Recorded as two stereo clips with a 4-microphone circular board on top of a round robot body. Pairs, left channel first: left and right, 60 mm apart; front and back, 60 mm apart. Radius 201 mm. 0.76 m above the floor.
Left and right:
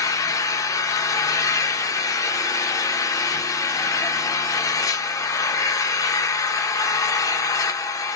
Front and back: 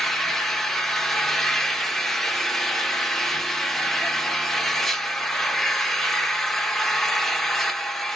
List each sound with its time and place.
0.0 s an engine running: 85° left, 0.9 m